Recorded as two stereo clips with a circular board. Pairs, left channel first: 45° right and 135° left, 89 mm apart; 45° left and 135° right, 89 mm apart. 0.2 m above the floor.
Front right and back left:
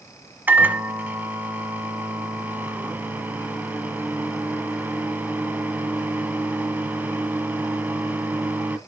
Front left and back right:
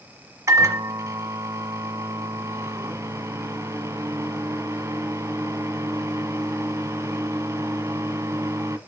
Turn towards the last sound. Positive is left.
turn(degrees=-165)